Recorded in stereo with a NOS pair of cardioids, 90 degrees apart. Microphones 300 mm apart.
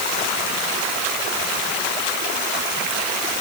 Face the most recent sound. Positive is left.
No sound to turn to.